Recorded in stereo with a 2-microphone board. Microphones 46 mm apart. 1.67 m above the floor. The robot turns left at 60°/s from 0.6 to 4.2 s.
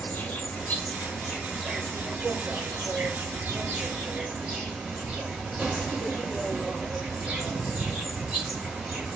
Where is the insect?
60° left, 1.7 m; by 9.2 s 155° right, 1.7 m.